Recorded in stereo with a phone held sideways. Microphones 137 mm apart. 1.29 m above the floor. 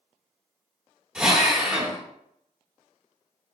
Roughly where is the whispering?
No whispering in this recording.